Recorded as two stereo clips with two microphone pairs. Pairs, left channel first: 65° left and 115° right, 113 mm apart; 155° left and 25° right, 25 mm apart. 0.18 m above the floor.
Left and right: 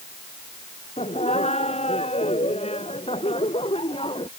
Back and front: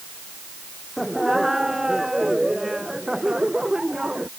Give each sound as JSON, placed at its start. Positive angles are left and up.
{"t": 1.0, "sound": "laughter", "azimuth_deg": 60}